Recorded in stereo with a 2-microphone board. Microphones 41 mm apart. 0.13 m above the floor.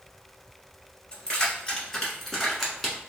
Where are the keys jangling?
20° left (ahead or behind), 1.8 m; by 3.0 s 5° right (ahead or behind), 1.1 m.